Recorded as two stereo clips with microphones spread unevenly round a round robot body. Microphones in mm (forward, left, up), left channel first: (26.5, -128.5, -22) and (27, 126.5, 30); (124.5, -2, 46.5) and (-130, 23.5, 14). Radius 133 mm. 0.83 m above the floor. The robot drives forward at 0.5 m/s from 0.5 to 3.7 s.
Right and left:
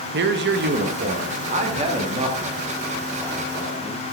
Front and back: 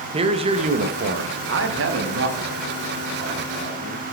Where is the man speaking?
130° left, 0.7 m; by 4.0 s 170° left, 2 m.